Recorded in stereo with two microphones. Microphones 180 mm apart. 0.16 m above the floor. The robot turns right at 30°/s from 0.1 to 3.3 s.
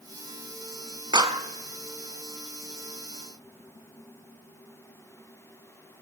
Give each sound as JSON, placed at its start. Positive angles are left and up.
{"t": 1.1, "sound": "a clap", "side_deg": -25, "distance_m": 0.9}